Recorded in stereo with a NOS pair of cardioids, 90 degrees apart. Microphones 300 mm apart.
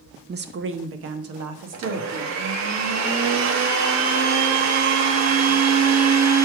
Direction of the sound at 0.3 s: 35° right.